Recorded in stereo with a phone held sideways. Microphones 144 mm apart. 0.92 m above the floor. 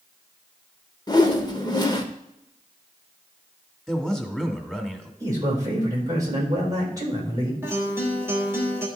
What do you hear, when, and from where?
1.1 s a whoosh: 30° left (ahead or behind), 0.9 m
3.9 s a man speaking: 5° left (ahead or behind), 1.3 m
5.2 s a man speaking: 25° right (ahead or behind), 4 m
7.6 s a guitar: 15° right (ahead or behind), 2 m